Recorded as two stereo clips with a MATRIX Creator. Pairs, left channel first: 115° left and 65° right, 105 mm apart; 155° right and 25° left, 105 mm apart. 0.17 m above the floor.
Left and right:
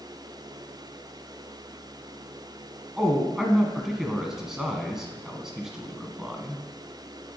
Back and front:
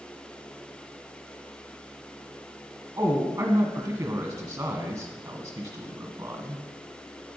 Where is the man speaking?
15° left, 1.4 m.